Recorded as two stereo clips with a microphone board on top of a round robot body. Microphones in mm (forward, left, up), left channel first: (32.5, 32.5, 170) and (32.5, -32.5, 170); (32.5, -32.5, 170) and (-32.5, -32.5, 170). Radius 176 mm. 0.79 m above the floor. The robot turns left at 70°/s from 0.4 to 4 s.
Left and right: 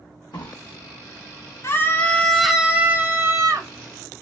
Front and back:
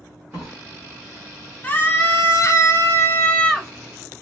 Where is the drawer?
115° left, 0.6 m; by 0.6 s 100° left, 0.6 m.